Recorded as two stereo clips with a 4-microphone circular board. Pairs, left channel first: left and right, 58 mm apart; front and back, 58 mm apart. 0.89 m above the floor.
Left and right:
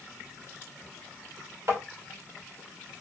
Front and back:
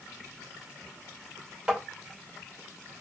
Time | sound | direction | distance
1.7 | tapping | 105° right | 1.8 m